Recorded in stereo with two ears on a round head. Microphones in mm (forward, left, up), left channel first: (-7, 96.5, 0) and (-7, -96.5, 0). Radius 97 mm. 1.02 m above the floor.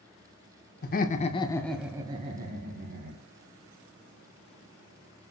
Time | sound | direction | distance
0.8 | laughter | 45° left (ahead or behind) | 0.6 m